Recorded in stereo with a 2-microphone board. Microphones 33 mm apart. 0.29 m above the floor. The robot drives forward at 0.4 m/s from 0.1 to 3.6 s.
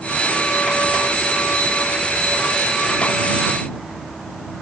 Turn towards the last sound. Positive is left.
No sound to turn to.